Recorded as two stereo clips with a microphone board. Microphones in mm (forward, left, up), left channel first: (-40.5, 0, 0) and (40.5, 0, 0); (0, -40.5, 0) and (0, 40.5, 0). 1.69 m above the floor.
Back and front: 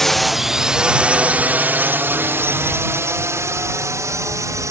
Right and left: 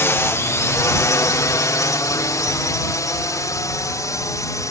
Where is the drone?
100° right; by 4.7 s 45° right.